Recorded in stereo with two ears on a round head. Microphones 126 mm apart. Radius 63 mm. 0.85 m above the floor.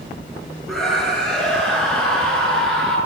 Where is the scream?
Centre (ahead or behind), 9 m; by 3.0 s 5° left (ahead or behind), 11 m.